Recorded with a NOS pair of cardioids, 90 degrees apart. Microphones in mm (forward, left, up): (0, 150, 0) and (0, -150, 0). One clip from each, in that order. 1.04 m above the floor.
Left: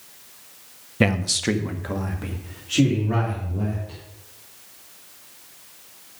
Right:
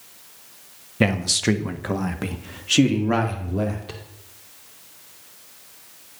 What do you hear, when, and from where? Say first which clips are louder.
1.0 s a man speaking: right 1 dB; 10° left, 1.1 m; by 4.0 s 75° right, 2.5 m